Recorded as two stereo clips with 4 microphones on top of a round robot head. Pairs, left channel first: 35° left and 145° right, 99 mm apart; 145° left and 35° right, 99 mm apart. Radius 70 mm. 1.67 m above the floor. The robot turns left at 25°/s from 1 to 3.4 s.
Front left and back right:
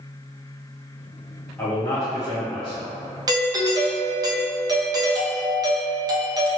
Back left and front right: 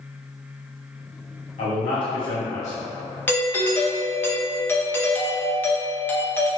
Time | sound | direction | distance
1.6 | a man speaking | 110° left | 1.2 m
3.3 | a doorbell | 155° right | 0.6 m